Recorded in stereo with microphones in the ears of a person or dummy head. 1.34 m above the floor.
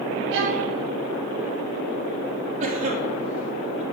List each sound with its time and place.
0.3 s a violin: 65° right (ahead or behind), 1.8 m
2.6 s a cough: 40° right (ahead or behind), 3.5 m